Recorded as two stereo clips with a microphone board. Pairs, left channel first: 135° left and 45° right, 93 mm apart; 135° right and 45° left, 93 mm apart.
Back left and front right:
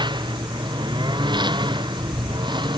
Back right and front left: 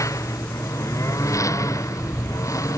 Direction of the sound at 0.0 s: 80° right.